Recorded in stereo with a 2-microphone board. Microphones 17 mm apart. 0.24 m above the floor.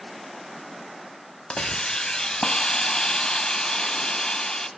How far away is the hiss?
About 0.6 m.